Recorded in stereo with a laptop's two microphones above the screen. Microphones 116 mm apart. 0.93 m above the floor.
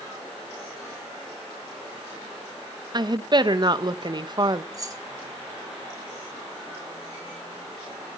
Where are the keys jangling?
30° right (ahead or behind), 1.8 m.